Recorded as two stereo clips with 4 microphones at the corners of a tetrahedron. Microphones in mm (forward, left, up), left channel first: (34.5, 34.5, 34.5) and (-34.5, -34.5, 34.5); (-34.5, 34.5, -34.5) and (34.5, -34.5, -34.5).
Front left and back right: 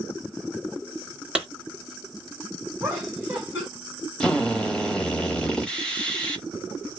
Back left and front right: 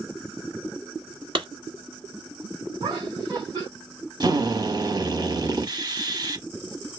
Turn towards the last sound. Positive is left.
turn(degrees=-35)